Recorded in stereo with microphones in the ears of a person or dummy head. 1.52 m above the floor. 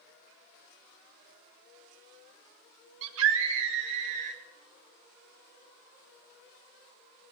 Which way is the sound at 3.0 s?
75° right (ahead or behind).